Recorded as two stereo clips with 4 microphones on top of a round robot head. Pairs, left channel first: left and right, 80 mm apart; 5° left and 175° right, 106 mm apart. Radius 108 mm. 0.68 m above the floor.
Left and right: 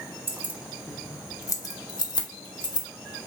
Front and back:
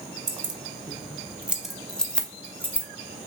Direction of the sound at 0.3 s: 145° right.